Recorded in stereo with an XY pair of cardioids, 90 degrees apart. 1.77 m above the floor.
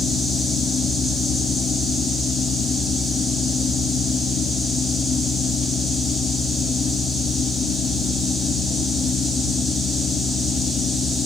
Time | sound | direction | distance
0.0 | a fan | 70° left | 1.8 m